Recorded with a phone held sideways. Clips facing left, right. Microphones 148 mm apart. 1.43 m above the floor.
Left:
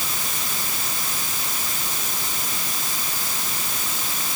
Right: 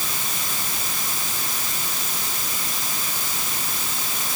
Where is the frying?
I don't hear frying.